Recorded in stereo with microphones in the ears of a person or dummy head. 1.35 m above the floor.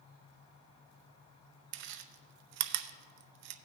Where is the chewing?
65° right (ahead or behind), 0.6 m.